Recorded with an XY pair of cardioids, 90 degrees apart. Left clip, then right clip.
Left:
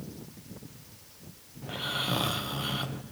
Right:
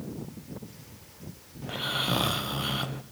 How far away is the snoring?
About 0.7 m.